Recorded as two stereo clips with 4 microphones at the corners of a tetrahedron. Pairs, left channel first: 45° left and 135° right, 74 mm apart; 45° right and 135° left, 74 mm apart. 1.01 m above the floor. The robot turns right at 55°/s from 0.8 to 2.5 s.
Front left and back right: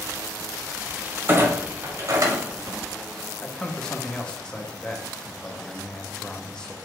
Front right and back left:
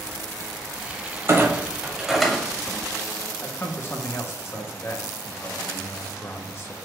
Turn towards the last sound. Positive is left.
turn(degrees=-25)